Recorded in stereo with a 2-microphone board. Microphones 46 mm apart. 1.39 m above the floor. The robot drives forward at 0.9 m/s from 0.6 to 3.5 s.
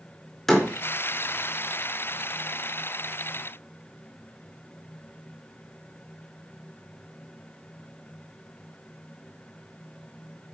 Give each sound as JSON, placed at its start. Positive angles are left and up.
{"t": 0.5, "sound": "a door slam", "side_deg": 5, "distance_m": 4.0}